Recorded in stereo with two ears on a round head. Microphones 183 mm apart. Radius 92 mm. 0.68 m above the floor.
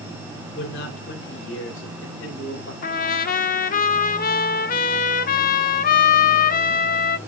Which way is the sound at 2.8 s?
45° left (ahead or behind).